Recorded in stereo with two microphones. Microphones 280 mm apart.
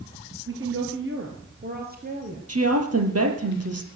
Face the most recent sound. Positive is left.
turn(degrees=-60)  # may be behind; listen again after turning